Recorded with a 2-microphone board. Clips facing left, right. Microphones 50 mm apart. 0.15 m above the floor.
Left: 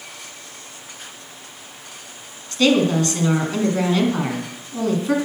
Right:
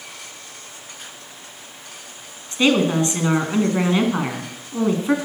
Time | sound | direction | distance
2.5 | a woman speaking | 20° right (ahead or behind) | 1.3 m